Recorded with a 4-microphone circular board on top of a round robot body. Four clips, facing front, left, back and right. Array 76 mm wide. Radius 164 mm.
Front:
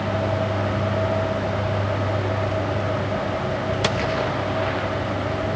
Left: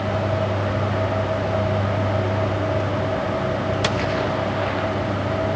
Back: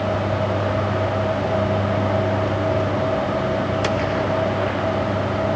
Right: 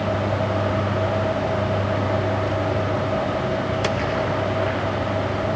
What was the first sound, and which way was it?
Only background noise.